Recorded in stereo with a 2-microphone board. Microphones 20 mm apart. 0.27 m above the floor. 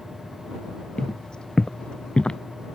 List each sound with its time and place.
1.0 s footsteps: 40° left (ahead or behind); by 2.4 s 55° left (ahead or behind)